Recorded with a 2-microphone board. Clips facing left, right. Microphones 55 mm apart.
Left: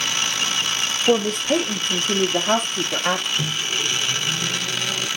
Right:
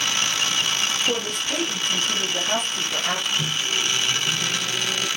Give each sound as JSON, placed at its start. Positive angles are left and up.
{"t": 1.1, "sound": "a woman speaking", "side_deg": 70, "distance_m": 3.5}
{"t": 3.4, "sound": "a microwave", "side_deg": 20, "distance_m": 3.0}